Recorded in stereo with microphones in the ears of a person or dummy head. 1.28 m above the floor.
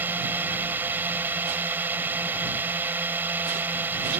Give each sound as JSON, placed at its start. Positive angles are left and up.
{"t": 0.0, "sound": "a drone", "side_deg": -15}